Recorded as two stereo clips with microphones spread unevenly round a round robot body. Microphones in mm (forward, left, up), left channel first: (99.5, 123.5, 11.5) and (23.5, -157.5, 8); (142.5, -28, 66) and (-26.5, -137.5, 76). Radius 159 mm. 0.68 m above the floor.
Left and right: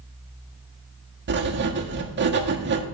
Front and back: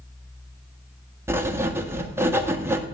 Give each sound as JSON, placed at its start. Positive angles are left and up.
{"t": 1.3, "sound": "writing", "azimuth_deg": -70, "distance_m": 1.4}